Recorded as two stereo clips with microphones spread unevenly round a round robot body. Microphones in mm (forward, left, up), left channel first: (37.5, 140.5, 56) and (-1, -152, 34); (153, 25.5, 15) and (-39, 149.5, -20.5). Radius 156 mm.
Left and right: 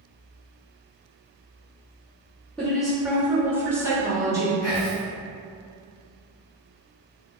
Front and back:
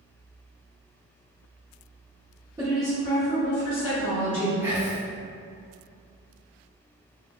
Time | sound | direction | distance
2.6 | a woman speaking | 175° left | 0.8 m
4.6 | whispering | 80° left | 1.4 m